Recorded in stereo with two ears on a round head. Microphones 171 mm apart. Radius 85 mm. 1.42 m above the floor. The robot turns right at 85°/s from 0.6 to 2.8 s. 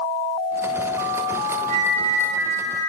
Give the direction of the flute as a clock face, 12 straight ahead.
5 o'clock.